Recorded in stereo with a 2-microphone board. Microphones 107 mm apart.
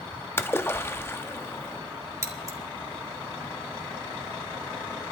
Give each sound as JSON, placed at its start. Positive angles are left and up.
{"t": 0.4, "sound": "a splash", "side_deg": 25, "distance_m": 0.7}
{"t": 2.2, "sound": "scissors", "side_deg": -30, "distance_m": 2.5}